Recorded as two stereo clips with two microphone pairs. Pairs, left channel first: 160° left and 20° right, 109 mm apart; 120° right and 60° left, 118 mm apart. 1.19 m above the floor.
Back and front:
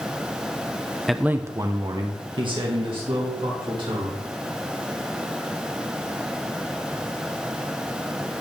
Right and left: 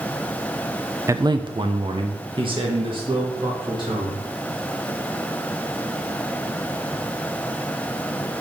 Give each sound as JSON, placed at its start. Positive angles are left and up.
{"t": 1.1, "sound": "a man speaking", "azimuth_deg": 75, "distance_m": 0.5}